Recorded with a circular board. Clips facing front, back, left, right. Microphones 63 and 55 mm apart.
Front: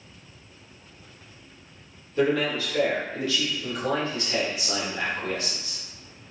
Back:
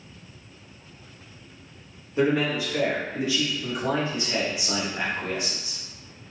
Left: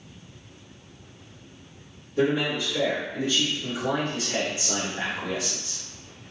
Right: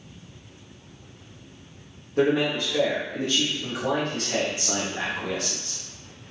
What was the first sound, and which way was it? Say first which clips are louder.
A man speaking: back 1 dB, right 2 dB; 115° right.